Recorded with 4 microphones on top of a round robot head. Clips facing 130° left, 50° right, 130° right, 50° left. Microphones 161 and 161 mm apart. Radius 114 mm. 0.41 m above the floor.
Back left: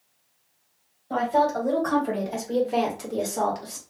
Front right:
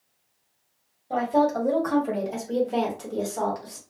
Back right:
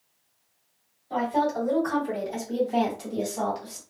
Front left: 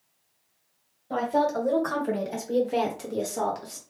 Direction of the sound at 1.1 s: 20° left.